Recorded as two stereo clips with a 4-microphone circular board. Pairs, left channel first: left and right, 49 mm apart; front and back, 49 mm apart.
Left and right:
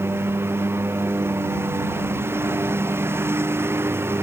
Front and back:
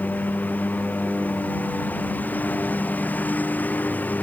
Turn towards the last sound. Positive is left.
turn(degrees=-55)